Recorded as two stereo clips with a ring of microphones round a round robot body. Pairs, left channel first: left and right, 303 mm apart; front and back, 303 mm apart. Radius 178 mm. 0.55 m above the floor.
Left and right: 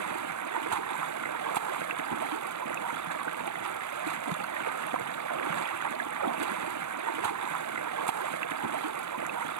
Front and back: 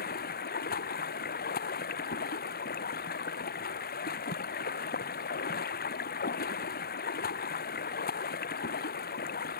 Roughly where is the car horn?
No car horn in this recording.